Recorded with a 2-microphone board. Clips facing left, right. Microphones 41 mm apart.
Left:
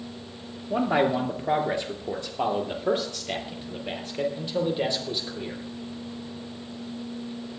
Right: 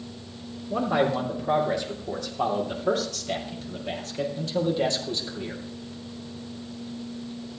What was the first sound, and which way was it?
A man speaking, 40° left (ahead or behind).